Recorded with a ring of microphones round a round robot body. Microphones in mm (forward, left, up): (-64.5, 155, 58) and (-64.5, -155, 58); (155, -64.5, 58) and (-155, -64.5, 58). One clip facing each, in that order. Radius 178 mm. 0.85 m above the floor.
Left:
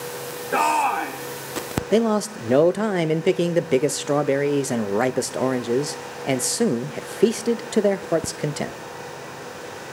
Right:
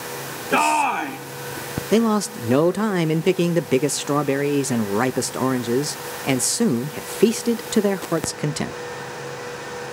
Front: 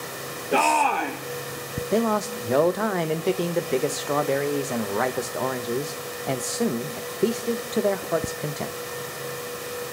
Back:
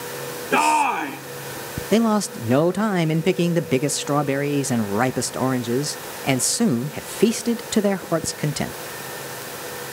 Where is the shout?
120° right, 1.5 m.